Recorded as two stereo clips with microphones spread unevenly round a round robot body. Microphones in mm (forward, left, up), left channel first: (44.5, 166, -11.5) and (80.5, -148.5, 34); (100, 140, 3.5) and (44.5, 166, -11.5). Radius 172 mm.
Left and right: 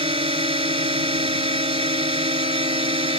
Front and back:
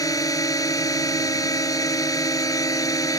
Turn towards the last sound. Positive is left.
turn(degrees=-10)